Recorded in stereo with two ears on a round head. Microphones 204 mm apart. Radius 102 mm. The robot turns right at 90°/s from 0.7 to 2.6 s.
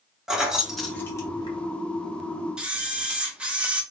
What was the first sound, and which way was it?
Keys jangling, centre (ahead or behind).